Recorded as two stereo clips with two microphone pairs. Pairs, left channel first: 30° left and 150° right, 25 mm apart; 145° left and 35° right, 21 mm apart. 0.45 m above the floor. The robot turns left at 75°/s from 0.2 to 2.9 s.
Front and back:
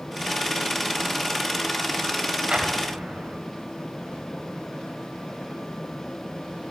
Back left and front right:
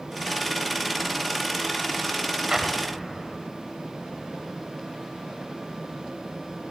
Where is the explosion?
100° right, 0.6 m; by 3.4 s 130° right, 0.6 m.